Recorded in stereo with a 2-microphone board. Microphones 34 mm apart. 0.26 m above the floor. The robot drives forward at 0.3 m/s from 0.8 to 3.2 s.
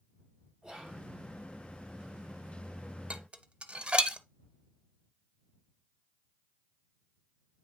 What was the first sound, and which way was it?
Whispering, 25° right (ahead or behind).